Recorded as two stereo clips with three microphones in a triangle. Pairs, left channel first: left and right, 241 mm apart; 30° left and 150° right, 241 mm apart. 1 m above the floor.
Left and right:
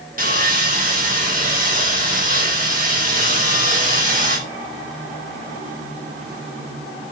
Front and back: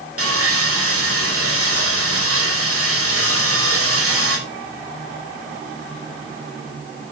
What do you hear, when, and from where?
0.2 s sawing: 145° right, 5.5 m